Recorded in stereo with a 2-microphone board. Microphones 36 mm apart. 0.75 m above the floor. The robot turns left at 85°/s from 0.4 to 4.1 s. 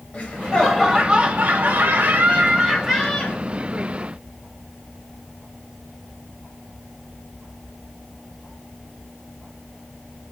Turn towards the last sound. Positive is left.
turn(degrees=75)